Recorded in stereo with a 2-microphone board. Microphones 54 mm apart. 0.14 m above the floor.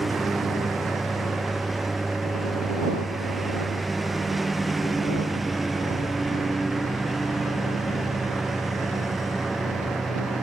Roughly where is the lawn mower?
Centre.